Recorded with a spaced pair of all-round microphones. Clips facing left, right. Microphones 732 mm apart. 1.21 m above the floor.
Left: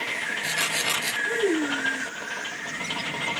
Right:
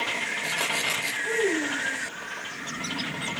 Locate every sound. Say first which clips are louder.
1.2 s a child speaking: left 2 dB; 65° right (ahead or behind), 4 m